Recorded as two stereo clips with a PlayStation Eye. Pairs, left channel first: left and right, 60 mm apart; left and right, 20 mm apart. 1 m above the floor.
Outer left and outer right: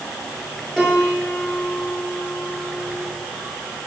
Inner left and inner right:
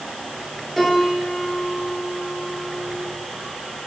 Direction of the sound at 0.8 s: 15° left (ahead or behind).